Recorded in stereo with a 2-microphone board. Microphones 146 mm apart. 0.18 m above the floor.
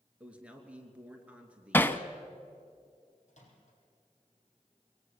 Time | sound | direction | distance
0.2 | a man speaking | 10° right (ahead or behind) | 2.5 m
1.7 | hammering | 15° left (ahead or behind) | 0.8 m
3.3 | a microwave | 60° left (ahead or behind) | 5.5 m